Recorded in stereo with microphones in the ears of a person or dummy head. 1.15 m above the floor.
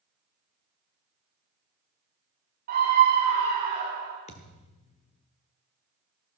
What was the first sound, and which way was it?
A scream, 55° right (ahead or behind).